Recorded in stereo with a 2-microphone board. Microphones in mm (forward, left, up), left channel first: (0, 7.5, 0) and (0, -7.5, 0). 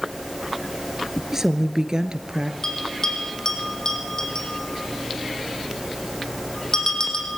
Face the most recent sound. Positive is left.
turn(degrees=40)  # may be behind; listen again after turning